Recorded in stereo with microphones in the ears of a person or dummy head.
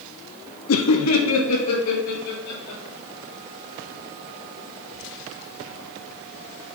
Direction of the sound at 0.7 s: 65° left (ahead or behind).